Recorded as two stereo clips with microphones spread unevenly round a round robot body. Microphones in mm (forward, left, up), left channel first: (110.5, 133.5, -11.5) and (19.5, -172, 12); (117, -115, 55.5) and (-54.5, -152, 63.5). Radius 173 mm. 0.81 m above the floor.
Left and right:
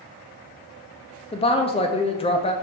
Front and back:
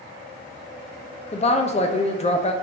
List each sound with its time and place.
1.3 s a woman speaking: 20° left, 0.6 m